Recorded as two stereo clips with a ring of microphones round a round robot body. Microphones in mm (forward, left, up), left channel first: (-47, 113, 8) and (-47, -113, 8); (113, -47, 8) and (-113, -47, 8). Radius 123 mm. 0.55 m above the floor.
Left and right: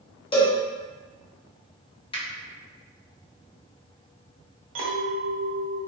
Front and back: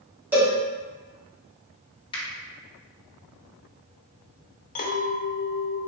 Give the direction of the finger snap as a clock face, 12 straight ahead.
10 o'clock.